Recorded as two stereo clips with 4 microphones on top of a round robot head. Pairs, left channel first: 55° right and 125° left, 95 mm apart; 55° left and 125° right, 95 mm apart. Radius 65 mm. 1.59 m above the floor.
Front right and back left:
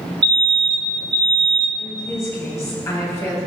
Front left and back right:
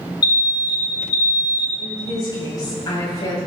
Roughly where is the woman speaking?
Ahead.